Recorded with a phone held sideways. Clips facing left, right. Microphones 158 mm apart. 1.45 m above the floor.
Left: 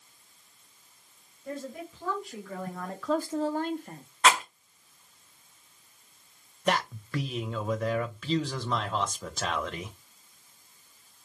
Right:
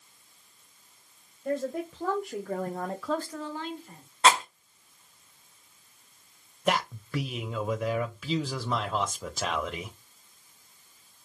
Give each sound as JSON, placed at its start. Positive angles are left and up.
{"t": 1.4, "sound": "a woman speaking", "side_deg": -65, "distance_m": 1.7}
{"t": 4.2, "sound": "a rattle", "side_deg": -30, "distance_m": 1.1}
{"t": 6.7, "sound": "a man speaking", "side_deg": -5, "distance_m": 0.5}